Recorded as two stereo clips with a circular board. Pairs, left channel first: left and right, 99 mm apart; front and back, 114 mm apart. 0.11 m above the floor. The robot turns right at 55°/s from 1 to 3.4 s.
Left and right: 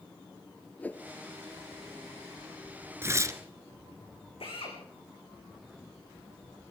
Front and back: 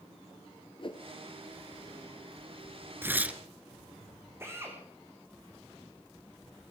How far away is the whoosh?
About 1.0 m.